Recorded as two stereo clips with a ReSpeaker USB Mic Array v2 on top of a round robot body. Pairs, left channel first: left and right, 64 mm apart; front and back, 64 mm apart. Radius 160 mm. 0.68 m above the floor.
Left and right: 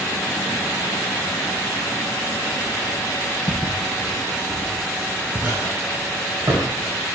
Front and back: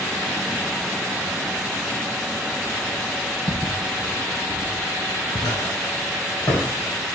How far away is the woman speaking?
No woman speaking in this recording.